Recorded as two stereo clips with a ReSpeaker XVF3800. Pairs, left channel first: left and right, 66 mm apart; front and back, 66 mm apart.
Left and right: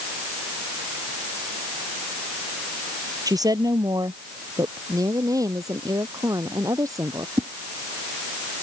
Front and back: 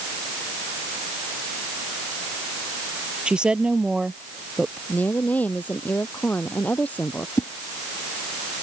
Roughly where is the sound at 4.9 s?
Ahead right.